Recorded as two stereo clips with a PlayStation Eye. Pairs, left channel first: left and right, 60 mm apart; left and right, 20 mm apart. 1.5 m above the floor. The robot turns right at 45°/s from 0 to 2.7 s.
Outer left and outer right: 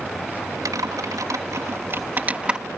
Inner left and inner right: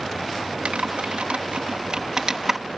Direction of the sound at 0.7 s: 80° right.